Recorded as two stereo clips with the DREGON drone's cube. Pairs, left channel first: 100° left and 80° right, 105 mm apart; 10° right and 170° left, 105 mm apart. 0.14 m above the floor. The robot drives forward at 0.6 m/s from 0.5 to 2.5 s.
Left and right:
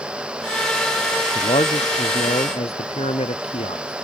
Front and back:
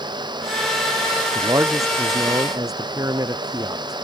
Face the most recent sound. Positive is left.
turn(degrees=115)